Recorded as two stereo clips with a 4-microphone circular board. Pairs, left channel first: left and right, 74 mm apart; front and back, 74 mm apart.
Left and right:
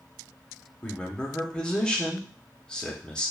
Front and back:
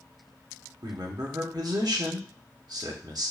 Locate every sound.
0.8 s a man speaking: 170° left, 0.9 m